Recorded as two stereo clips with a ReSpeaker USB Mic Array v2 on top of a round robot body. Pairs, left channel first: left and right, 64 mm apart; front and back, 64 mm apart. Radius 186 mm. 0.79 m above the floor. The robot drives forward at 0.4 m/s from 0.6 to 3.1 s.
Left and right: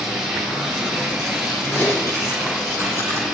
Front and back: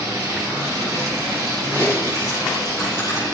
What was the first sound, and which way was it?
Running water, 170° right.